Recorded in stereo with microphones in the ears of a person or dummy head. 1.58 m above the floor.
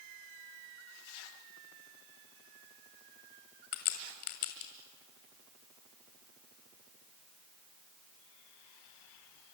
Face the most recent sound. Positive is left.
turn(degrees=50)  # may be behind; listen again after turning